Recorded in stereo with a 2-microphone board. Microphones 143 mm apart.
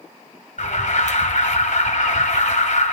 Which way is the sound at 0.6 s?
65° left (ahead or behind).